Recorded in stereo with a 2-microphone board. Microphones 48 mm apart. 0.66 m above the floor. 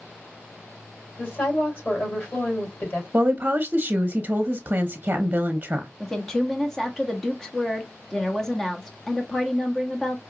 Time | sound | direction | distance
1.2 | a woman speaking | 40° left (ahead or behind) | 3 m
3.1 | a woman speaking | 35° right (ahead or behind) | 0.7 m
6.0 | a woman speaking | 10° left (ahead or behind) | 1.0 m